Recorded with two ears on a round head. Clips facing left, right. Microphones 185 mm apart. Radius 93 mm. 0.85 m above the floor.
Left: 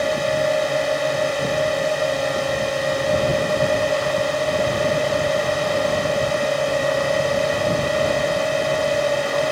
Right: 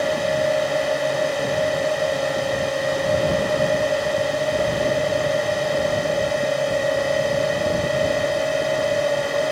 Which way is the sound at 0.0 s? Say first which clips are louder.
Even; centre (ahead or behind).